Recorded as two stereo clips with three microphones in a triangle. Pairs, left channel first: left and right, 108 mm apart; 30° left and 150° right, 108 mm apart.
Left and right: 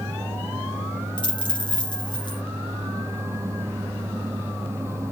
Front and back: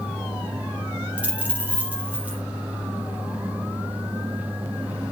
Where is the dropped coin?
135° left, 3.5 m.